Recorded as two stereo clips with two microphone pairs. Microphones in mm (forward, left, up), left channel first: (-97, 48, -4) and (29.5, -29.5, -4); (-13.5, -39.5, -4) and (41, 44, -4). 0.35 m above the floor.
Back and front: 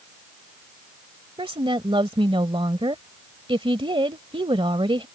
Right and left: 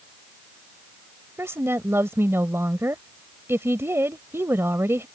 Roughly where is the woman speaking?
Ahead.